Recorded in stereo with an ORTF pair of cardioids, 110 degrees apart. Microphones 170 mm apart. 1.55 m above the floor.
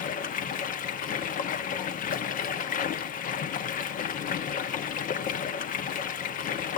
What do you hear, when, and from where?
0.0 s running water: 55° left, 0.9 m